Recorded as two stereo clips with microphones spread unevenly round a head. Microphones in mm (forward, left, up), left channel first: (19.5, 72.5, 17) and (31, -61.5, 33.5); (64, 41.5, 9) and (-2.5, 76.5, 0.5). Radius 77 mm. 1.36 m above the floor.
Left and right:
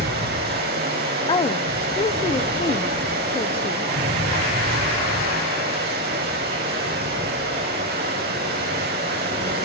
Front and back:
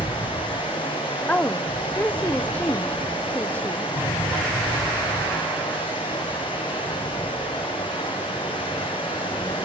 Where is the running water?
80° right, 5.5 m.